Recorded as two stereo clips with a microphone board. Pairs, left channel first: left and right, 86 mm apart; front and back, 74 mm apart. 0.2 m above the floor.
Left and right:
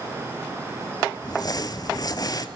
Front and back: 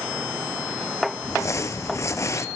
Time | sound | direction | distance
1.2 | crumpling | 45° left | 0.7 m